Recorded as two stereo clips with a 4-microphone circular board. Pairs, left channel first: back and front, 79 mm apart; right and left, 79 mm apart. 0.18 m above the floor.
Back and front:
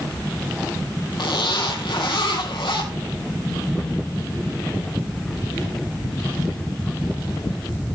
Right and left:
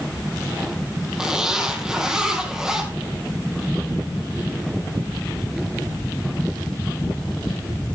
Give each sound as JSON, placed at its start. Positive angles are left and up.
{"t": 1.2, "sound": "a zipper", "azimuth_deg": 170, "distance_m": 3.0}